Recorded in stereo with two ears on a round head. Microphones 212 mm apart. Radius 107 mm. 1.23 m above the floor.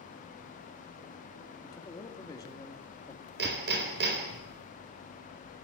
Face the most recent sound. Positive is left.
turn(degrees=-50)  # may be behind; listen again after turning